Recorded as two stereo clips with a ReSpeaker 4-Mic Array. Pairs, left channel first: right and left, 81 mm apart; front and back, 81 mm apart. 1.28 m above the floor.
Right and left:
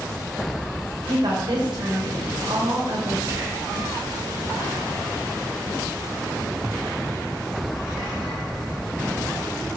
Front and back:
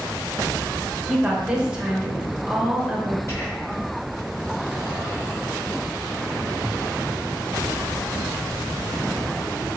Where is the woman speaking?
100° left, 1.0 m.